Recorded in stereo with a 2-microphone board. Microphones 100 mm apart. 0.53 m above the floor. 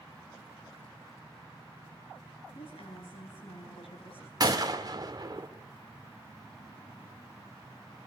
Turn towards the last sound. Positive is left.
turn(degrees=-40)  # may be behind; listen again after turning